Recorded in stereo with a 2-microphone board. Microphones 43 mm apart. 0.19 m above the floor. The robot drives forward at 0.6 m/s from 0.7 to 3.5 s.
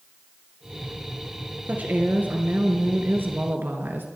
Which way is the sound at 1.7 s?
40° right (ahead or behind).